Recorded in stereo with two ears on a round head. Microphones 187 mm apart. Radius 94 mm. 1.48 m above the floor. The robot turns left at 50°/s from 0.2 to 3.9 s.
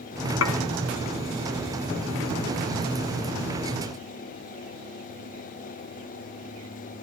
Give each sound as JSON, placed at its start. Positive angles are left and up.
{"t": 0.4, "sound": "dishes clattering", "side_deg": 70, "distance_m": 1.8}